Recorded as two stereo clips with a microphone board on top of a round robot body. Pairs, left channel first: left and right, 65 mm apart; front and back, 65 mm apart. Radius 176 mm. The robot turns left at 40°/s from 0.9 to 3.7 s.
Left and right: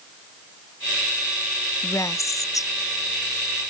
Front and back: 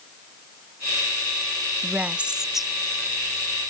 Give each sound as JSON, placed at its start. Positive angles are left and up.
{"t": 1.8, "sound": "a woman speaking", "azimuth_deg": 125}